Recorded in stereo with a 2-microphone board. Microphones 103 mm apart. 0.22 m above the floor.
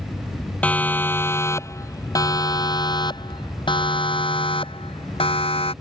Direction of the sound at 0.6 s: 15° left (ahead or behind).